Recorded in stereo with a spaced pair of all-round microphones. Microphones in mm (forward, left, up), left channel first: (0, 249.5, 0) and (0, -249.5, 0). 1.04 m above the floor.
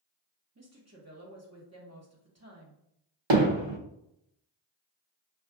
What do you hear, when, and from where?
0.6 s a woman speaking: 30° right (ahead or behind), 1.0 m
3.3 s hammering: 60° right (ahead or behind), 0.7 m